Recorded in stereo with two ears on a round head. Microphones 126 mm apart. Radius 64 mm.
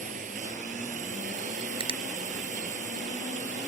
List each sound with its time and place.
0.0 s a drone: 55° right (ahead or behind)
1.8 s a finger snap: 35° right (ahead or behind)